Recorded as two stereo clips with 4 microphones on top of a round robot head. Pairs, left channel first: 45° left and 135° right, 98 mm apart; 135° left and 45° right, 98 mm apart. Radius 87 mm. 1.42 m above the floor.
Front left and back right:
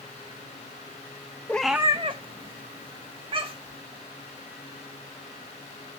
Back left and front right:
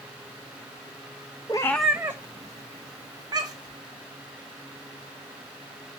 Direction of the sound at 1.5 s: 105° left.